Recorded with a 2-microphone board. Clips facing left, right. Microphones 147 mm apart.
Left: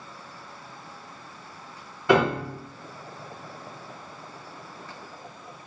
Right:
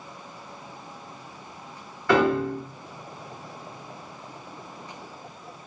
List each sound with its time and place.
2.1 s a piano: 20° left (ahead or behind), 0.8 m